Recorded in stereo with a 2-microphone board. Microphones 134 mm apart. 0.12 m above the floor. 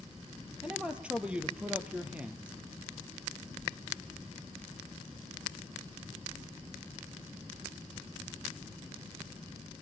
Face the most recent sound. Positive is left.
turn(degrees=-10)  # may be behind; listen again after turning